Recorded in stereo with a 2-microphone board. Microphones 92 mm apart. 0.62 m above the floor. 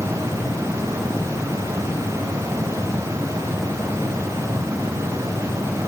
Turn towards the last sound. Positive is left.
No sound to turn to.